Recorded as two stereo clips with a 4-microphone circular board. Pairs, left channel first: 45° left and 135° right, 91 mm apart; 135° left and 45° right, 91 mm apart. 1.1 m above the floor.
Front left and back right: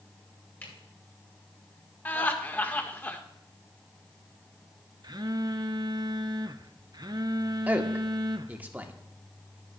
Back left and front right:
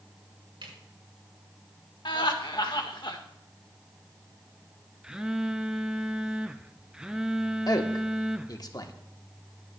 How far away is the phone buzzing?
About 0.6 m.